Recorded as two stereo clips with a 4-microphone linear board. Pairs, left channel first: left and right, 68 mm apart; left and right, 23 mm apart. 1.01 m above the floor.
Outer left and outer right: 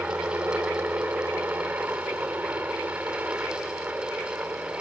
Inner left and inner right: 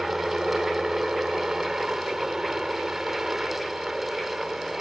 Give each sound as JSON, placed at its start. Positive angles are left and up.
{"t": 0.0, "sound": "a helicopter", "side_deg": -30}